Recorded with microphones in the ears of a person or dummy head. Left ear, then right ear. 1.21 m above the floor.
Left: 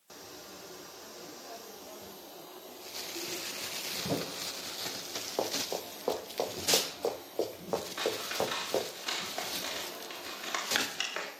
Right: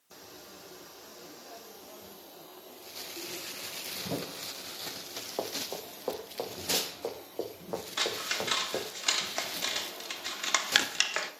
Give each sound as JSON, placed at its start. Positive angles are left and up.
{"t": 5.4, "sound": "running footsteps", "side_deg": 0, "distance_m": 4.5}
{"t": 8.0, "sound": "scissors", "side_deg": -35, "distance_m": 1.9}